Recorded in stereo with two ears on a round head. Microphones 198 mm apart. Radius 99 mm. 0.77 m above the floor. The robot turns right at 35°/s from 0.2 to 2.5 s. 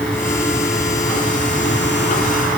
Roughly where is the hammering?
No hammering in this recording.